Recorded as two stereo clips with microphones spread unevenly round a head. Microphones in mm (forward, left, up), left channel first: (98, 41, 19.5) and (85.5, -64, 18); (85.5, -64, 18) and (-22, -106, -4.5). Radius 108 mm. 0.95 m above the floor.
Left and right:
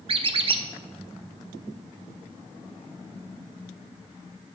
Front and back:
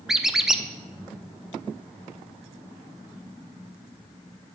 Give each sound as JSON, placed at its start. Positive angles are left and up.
{"t": 0.1, "sound": "a squeak", "azimuth_deg": -65, "distance_m": 0.6}